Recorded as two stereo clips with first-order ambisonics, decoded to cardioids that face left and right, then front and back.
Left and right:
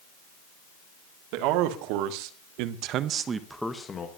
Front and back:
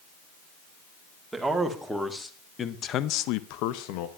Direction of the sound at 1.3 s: 95° right.